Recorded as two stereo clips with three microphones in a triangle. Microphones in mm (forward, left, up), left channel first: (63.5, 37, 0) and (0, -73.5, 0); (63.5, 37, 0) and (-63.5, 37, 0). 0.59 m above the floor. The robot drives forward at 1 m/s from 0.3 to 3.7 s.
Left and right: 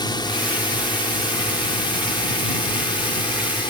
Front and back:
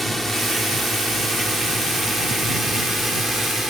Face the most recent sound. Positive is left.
turn(degrees=90)